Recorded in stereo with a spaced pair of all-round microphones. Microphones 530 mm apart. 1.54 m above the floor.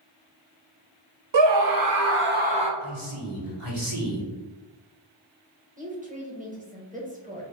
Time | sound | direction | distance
1.3 | a scream | 65° right (ahead or behind) | 0.6 m
2.8 | a man speaking | 75° right (ahead or behind) | 1.3 m
5.8 | a woman speaking | 15° right (ahead or behind) | 1.0 m